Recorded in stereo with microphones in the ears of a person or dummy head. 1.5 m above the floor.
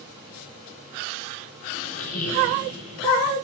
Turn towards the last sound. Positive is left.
turn(degrees=45)  # may be behind; listen again after turning